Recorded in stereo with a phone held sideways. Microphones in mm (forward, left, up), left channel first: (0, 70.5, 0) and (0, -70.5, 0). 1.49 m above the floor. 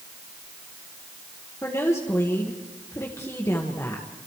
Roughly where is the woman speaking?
Centre.